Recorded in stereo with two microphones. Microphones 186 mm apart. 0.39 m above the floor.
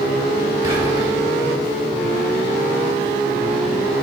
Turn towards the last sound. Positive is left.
turn(degrees=-15)  # may be behind; listen again after turning